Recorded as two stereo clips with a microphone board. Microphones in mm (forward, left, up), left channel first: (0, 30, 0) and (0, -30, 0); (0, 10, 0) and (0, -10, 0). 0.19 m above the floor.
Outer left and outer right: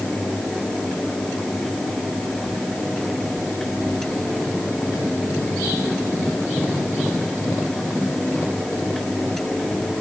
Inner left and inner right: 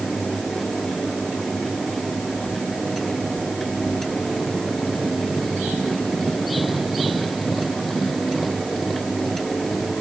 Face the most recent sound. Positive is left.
No sound to turn to.